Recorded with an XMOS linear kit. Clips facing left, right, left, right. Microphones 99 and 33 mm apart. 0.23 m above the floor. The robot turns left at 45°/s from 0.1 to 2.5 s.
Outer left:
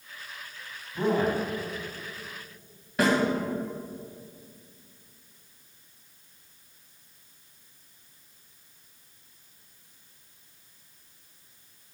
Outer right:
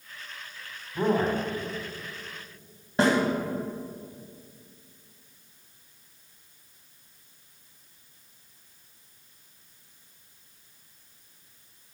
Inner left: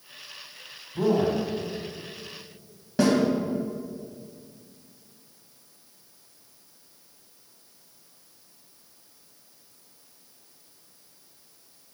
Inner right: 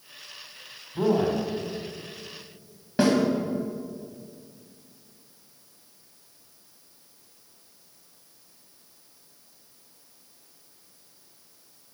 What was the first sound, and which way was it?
A man speaking, 20° right (ahead or behind).